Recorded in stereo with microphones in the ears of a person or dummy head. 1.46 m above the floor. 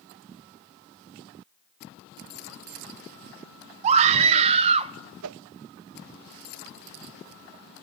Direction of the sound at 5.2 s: 70° right (ahead or behind).